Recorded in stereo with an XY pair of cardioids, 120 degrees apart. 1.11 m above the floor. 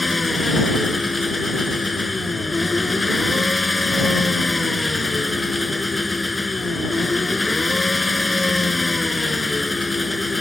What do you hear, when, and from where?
0.0 s an engine running: 15° left